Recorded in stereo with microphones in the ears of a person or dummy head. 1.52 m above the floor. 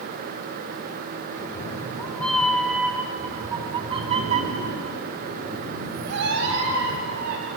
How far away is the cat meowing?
About 2.5 m.